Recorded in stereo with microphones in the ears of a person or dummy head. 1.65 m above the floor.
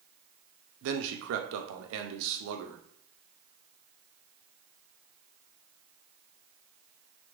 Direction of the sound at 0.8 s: 75° right (ahead or behind).